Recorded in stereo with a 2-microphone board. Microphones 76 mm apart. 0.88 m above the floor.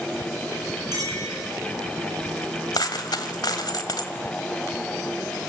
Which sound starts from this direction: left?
A dropped coin, at 2.7 s.